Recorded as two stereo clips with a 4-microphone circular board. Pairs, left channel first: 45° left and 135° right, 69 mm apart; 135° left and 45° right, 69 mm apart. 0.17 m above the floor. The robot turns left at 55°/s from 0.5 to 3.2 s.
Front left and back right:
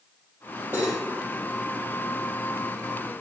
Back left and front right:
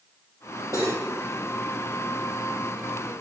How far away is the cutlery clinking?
About 2.5 m.